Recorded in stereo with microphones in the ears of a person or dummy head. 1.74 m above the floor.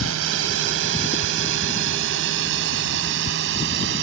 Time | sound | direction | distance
0.0 | a drone | 75° right (ahead or behind) | ?